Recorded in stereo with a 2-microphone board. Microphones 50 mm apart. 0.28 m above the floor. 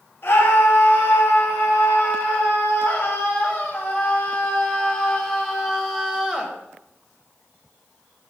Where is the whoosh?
I don't hear a whoosh.